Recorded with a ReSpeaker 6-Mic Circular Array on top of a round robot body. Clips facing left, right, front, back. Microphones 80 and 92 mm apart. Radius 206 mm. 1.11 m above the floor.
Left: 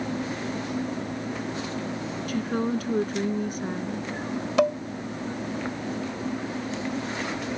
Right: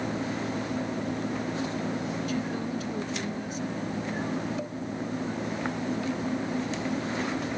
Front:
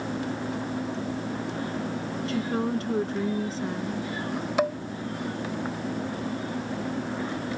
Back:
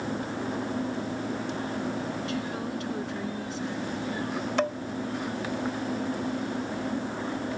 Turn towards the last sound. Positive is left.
turn(degrees=80)